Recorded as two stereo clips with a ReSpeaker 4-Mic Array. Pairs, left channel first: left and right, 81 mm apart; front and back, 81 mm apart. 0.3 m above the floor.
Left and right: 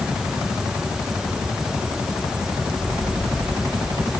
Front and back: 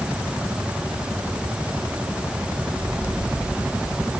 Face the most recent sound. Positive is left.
No sound to turn to.